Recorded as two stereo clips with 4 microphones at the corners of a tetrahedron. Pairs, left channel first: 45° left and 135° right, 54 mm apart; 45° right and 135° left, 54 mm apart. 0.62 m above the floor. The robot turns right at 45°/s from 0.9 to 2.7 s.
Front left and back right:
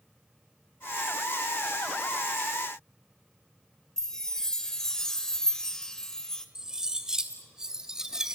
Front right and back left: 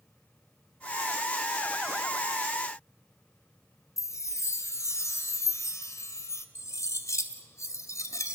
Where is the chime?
35° right, 1.8 m.